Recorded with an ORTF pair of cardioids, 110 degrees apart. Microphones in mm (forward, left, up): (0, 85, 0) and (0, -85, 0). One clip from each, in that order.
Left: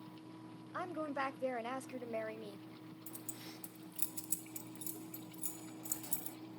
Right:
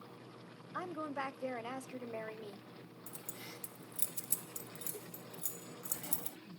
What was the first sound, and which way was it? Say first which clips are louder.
A woman speaking: left 1 dB; 10° left.